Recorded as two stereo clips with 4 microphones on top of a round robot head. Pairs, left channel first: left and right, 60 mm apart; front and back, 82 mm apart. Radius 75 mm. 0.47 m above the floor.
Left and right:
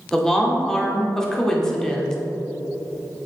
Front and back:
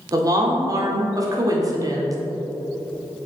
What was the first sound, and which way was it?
A woman speaking, 170° left.